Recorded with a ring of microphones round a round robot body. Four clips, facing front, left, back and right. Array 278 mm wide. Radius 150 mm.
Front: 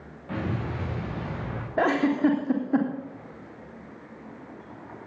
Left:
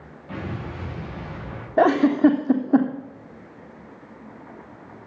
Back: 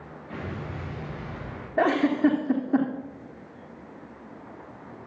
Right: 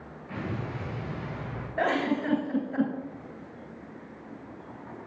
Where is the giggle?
90° left, 3 m.